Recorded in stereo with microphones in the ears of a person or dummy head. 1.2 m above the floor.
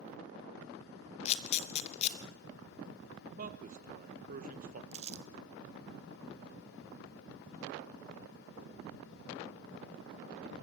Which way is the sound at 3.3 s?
40° right (ahead or behind).